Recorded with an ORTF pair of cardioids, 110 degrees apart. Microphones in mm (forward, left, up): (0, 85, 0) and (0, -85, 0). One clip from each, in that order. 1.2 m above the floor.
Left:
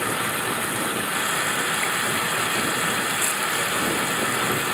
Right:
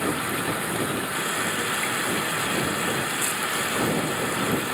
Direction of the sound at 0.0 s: 40° left.